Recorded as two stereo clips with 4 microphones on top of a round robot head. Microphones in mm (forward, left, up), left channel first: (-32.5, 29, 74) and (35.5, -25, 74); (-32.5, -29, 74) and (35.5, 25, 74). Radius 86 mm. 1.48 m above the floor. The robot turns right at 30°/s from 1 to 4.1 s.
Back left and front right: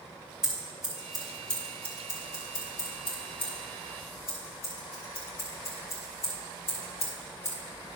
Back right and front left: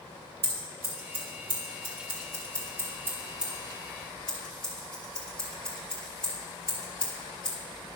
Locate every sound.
0.4 s scissors: 45° left, 2 m; by 7.6 s 140° left, 2 m